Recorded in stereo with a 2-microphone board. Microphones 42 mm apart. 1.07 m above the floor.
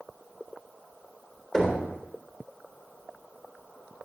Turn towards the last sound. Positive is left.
turn(degrees=15)  # may be behind; listen again after turning